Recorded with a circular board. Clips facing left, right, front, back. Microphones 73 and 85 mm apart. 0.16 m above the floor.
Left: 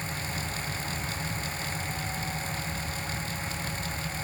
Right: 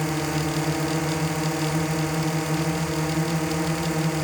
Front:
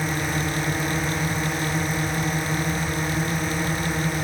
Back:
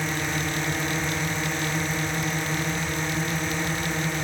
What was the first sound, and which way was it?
A drone, 85° right.